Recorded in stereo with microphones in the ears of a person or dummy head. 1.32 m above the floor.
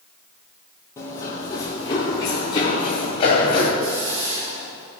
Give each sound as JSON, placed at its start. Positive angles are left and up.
{"t": 1.0, "sound": "running footsteps", "side_deg": 20, "distance_m": 2.0}
{"t": 3.8, "sound": "a hiss", "side_deg": -35, "distance_m": 4.0}